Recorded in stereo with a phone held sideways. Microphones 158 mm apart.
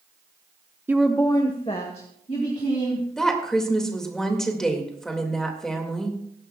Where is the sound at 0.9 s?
15° right (ahead or behind), 0.6 m; by 3.1 s 50° left (ahead or behind), 3 m.